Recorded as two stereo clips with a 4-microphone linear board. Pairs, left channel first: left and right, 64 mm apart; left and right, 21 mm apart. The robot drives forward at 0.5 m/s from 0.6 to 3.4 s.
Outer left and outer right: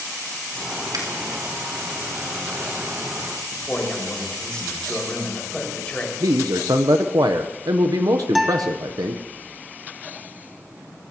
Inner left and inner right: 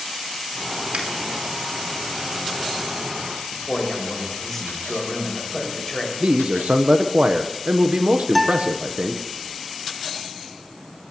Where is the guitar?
5° right (ahead or behind), 1.3 m.